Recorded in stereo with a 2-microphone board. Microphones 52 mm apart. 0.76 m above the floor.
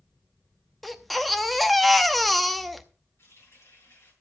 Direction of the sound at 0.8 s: Centre (ahead or behind).